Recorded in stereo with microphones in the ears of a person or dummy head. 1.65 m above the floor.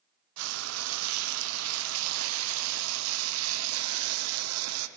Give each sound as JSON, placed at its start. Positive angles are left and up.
{"t": 0.4, "sound": "frying", "side_deg": -90, "distance_m": 0.7}